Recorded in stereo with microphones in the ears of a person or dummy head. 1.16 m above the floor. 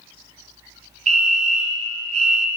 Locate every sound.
1.1 s a fire alarm: 25° right (ahead or behind), 1.0 m